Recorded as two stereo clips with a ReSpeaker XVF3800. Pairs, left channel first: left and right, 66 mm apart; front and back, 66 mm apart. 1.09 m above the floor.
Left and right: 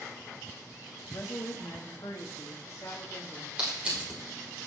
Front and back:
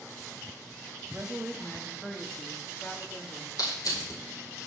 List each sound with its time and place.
1.1 s a woman speaking: 110° left, 1.9 m; by 3.5 s 40° left, 3 m
3.6 s crushing: 20° right, 5 m